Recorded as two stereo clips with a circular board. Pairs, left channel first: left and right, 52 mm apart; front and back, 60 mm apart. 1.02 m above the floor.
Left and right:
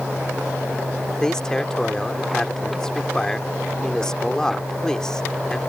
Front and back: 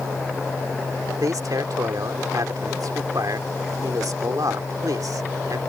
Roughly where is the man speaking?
Behind.